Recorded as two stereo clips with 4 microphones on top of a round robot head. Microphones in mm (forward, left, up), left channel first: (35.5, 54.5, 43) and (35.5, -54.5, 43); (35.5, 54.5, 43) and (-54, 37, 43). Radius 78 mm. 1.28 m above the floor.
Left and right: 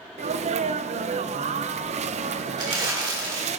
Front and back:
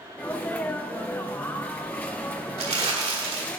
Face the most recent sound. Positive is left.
turn(degrees=-145)